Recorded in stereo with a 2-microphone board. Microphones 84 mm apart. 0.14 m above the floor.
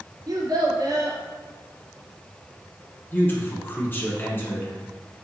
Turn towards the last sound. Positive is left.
turn(degrees=25)  # may be behind; listen again after turning